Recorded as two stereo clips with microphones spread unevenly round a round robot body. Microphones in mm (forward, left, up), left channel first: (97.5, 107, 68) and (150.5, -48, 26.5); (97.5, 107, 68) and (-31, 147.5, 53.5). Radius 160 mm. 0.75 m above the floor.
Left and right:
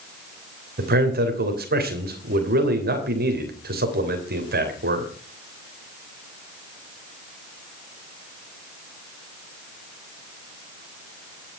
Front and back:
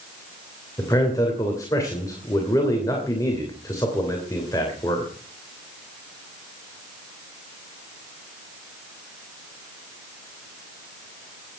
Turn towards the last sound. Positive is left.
turn(degrees=-95)